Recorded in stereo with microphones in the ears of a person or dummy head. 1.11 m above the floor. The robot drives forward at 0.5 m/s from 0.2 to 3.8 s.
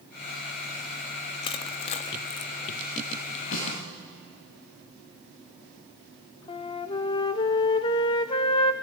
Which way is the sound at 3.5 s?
50° left (ahead or behind).